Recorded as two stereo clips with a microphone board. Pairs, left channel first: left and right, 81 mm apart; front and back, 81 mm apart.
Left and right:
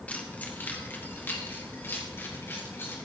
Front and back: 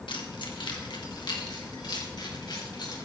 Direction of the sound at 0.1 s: 15° left.